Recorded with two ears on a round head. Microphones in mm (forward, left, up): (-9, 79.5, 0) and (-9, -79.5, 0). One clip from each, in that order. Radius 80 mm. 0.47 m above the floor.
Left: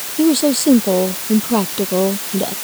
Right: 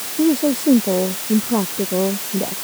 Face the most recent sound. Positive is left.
turn(degrees=85)